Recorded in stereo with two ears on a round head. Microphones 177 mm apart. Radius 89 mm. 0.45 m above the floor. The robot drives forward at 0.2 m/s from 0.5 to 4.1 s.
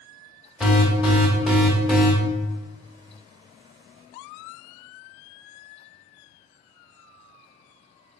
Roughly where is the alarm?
Centre.